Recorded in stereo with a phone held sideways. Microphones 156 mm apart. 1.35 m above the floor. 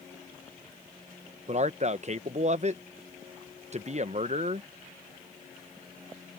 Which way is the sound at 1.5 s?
45° right (ahead or behind).